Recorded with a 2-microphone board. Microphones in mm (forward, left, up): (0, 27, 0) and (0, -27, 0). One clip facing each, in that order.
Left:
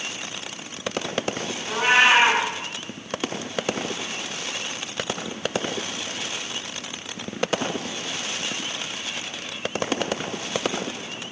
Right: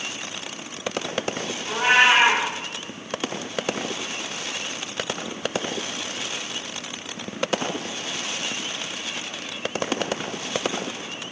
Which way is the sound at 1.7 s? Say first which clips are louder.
Even; 10° left (ahead or behind).